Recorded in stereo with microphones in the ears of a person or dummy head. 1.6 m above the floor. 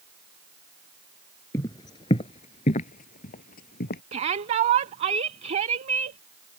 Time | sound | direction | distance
1.5 | footsteps | 15° left (ahead or behind) | ?
4.1 | a shout | 40° right (ahead or behind) | ?